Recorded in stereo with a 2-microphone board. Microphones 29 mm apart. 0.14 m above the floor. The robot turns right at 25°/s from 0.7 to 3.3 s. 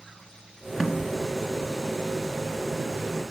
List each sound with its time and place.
0.8 s a snare drum: 15° right (ahead or behind), 1.8 m; by 1.1 s 20° right (ahead or behind), 1.8 m